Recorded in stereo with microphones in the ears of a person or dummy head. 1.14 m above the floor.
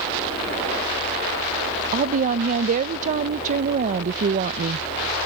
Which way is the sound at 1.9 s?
40° right (ahead or behind).